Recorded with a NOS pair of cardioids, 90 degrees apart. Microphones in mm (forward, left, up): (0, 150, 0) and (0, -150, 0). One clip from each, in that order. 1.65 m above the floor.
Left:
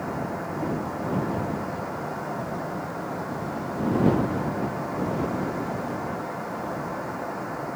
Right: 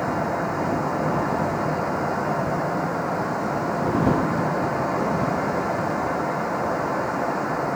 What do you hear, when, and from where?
0.0 s a fan: 55° right